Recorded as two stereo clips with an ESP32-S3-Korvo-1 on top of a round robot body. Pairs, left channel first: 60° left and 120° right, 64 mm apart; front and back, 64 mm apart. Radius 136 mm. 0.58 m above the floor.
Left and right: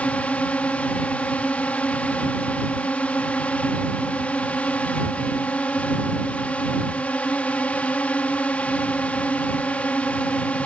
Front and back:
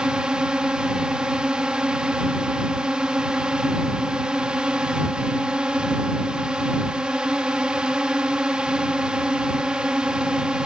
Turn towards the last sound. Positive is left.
turn(degrees=115)